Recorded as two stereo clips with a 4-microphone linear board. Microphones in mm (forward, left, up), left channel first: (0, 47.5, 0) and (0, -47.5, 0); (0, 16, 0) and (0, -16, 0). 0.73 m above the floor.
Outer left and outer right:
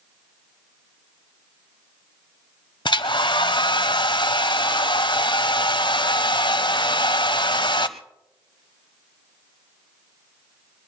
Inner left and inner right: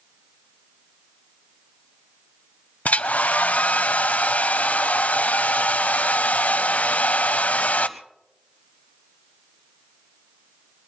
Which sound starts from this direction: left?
A hair dryer, at 2.9 s.